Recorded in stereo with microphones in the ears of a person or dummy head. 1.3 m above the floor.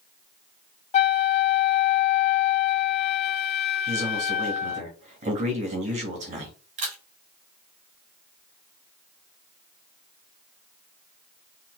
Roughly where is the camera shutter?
Right.